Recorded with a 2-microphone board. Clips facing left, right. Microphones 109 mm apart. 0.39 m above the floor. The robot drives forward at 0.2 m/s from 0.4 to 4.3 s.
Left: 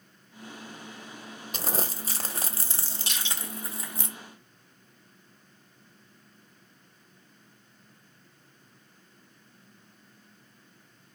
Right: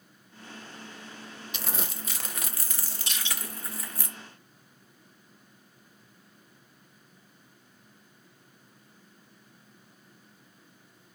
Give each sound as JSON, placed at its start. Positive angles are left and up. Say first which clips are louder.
{"t": 1.5, "sound": "crumpling", "louder": "left 5 dB", "side_deg": 40, "distance_m": 0.5}
{"t": 3.1, "sound": "crushing", "louder": "even", "side_deg": 70, "distance_m": 2.5}